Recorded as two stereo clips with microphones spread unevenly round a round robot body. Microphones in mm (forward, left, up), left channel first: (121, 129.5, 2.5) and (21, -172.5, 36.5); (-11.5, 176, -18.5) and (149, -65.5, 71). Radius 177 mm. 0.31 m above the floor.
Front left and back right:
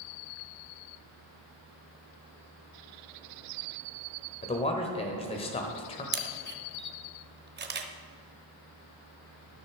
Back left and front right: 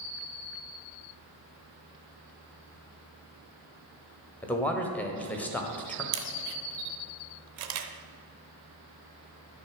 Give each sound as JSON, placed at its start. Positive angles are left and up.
{"t": 4.4, "sound": "a man speaking", "azimuth_deg": 95, "distance_m": 1.2}
{"t": 6.1, "sound": "a camera shutter", "azimuth_deg": -55, "distance_m": 1.0}